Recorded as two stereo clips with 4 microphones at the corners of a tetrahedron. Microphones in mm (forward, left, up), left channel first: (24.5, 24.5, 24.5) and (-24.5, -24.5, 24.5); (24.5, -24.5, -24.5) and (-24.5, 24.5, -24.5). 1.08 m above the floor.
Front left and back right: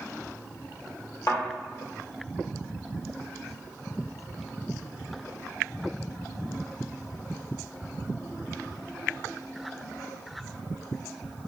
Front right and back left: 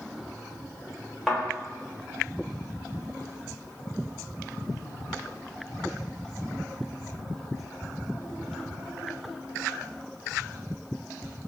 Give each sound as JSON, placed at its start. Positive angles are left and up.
{"t": 1.3, "sound": "a thud", "azimuth_deg": 45, "distance_m": 1.2}